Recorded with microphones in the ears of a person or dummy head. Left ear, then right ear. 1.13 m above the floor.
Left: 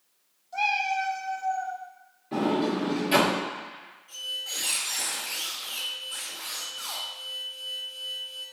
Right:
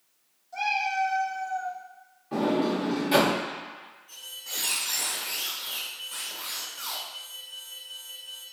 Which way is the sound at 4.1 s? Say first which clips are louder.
Left 6 dB; 5° left (ahead or behind).